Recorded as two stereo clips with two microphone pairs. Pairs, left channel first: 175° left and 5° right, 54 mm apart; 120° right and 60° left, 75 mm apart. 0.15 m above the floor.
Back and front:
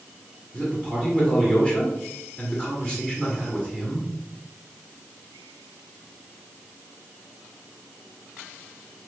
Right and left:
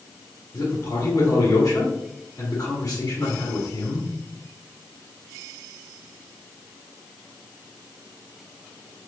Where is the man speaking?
120° right, 1.3 m.